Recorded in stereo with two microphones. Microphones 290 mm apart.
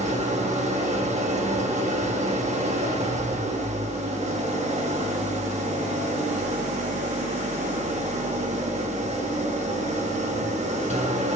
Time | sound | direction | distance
0.0 | an engine running | 25° right (ahead or behind) | 1.3 m